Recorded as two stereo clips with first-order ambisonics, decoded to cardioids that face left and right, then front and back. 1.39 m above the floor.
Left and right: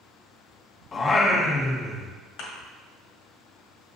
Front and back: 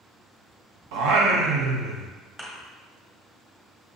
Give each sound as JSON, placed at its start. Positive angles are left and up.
{"t": 0.9, "sound": "singing", "azimuth_deg": 155, "distance_m": 0.8}
{"t": 2.4, "sound": "a thud", "azimuth_deg": 105, "distance_m": 1.7}